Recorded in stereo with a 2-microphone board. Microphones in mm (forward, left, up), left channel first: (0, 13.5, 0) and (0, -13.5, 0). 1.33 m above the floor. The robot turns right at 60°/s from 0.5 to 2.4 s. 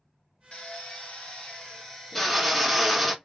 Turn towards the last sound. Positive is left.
turn(degrees=180)